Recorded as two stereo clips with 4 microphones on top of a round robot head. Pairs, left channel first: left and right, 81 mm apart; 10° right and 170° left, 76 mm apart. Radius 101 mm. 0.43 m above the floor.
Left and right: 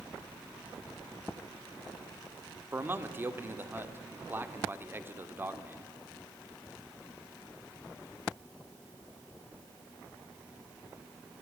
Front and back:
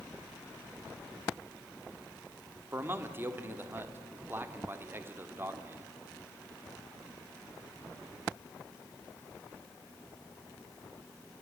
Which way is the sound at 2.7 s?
140° right.